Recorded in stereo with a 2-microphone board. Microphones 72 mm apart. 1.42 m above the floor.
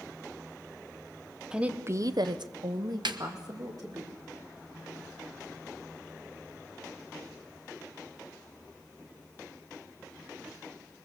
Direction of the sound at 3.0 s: 85° right.